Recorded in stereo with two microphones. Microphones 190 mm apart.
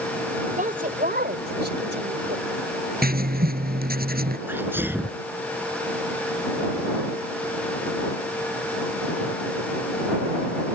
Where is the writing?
50° right (ahead or behind).